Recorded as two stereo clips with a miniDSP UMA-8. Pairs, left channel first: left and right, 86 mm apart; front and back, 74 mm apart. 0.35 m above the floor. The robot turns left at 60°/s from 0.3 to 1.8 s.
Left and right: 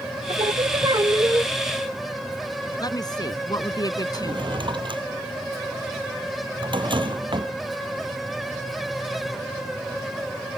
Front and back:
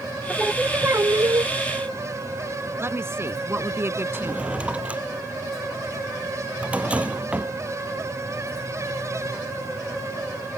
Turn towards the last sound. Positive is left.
turn(degrees=-105)